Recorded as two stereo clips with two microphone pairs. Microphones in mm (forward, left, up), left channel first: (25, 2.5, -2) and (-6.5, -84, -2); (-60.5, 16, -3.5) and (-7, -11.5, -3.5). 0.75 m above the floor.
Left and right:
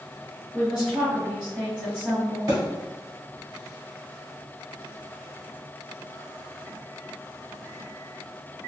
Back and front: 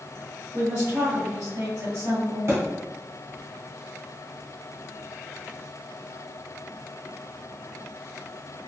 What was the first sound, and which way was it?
A woman speaking, 40° right.